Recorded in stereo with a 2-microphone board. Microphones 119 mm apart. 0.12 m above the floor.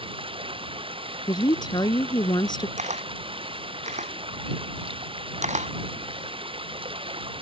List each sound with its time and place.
0.0 s running water: 50° right (ahead or behind)
1.3 s a woman speaking: 40° left (ahead or behind)
2.8 s a camera shutter: 80° right